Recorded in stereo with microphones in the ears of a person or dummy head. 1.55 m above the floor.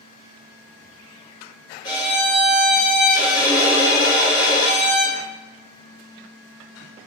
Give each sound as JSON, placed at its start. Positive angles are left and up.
{"t": 1.8, "sound": "a violin", "side_deg": 30, "distance_m": 0.9}